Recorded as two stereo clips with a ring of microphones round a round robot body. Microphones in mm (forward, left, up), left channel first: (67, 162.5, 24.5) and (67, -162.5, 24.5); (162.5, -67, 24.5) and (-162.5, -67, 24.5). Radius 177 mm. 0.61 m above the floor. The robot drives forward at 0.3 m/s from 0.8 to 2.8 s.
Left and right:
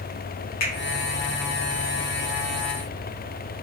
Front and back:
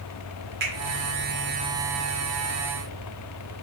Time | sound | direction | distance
0.6 | a finger snap | 120° left | 1.3 m